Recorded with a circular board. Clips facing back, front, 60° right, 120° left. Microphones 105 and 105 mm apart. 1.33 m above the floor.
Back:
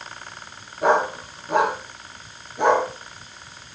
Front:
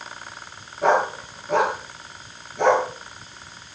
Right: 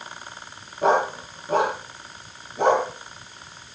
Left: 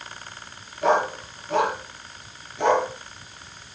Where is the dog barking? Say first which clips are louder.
Even, right 1 dB; 100° right, 7 m.